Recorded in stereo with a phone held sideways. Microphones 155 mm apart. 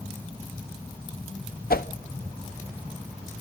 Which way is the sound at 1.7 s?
75° left (ahead or behind).